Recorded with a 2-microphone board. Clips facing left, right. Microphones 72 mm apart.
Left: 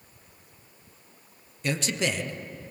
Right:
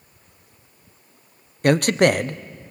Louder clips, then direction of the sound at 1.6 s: Right 12 dB; 55° right (ahead or behind).